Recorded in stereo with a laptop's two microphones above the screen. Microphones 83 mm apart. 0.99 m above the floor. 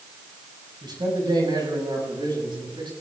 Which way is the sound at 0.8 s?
60° right (ahead or behind).